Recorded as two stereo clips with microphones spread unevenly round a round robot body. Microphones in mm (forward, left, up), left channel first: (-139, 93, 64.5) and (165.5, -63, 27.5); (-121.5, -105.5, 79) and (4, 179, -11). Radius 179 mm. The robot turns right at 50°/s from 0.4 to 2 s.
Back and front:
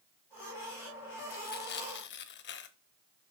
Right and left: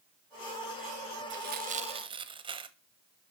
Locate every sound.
1.3 s tearing paper: 120° left, 0.6 m; by 2.8 s 155° left, 0.6 m